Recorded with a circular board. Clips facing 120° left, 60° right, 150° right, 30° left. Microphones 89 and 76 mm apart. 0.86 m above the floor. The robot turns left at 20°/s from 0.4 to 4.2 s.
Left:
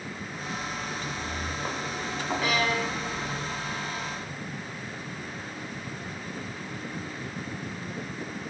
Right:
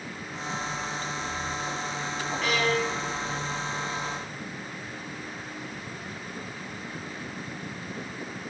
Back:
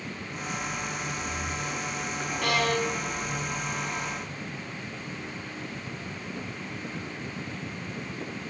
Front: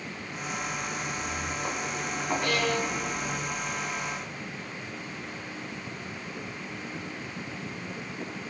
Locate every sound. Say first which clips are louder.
0.9 s footsteps: right 1 dB, even; 95° left, 5.5 m; by 3.4 s 35° left, 4 m
2.4 s a violin: right 2 dB, back 4 dB; 155° right, 5.5 m; by 4.2 s 170° left, 5.5 m